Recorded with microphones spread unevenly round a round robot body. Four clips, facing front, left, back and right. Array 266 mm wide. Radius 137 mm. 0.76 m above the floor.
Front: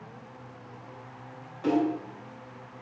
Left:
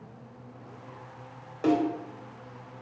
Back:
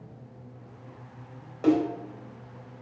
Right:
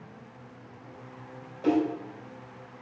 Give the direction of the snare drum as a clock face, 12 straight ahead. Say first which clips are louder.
Even, back 3 dB; 8 o'clock.